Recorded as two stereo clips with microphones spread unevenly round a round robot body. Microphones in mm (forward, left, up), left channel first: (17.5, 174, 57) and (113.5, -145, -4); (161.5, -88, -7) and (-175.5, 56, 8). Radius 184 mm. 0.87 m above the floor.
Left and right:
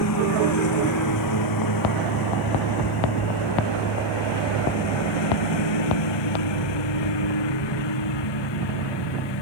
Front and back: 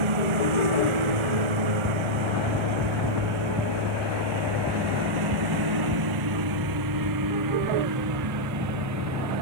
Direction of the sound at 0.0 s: 155° left.